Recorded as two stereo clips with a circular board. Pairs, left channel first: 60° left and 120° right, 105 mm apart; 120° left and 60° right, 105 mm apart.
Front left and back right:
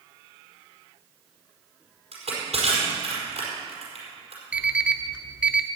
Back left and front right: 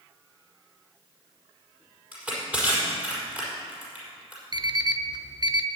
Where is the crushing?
135° right, 5 m.